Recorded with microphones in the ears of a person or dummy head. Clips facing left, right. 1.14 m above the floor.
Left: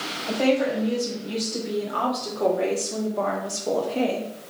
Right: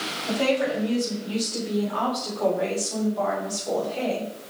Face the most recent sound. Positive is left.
turn(degrees=55)  # may be behind; listen again after turning